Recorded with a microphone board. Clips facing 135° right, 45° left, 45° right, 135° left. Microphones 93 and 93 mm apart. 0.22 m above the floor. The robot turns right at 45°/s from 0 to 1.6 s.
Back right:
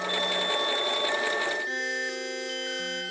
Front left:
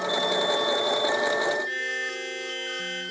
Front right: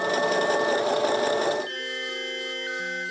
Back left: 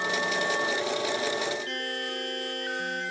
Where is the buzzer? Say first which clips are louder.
Even, even; 155° left, 8.5 m.